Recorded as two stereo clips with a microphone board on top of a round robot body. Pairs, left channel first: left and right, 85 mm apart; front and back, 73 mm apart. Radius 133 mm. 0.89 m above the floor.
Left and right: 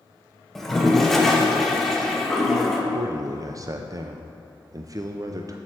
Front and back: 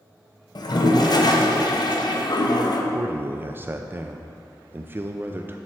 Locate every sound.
0.6 s a toilet flushing: 5° left, 1.1 m
2.9 s a man speaking: 125° right, 0.6 m